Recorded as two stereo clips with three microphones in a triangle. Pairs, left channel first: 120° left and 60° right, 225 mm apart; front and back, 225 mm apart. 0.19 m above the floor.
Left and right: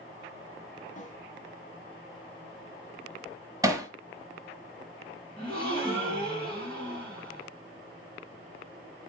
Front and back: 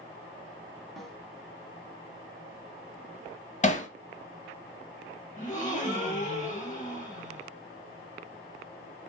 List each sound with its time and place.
1.0 s a snare drum: 90° left, 1.2 m
3.6 s hammering: straight ahead, 1.0 m
5.4 s a gasp: 55° left, 2.5 m